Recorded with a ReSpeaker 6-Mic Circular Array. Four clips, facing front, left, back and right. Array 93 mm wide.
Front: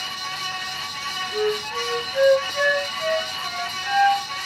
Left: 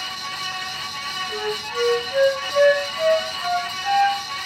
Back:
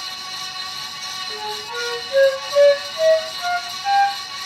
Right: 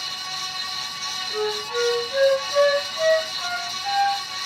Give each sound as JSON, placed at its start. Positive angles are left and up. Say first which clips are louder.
{"t": 1.3, "sound": "a flute", "louder": "right 3 dB, front 6 dB", "azimuth_deg": -175, "distance_m": 4.0}